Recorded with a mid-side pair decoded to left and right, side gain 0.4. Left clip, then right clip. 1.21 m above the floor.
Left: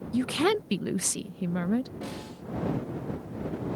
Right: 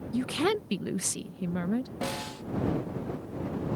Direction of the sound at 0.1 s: 20° left.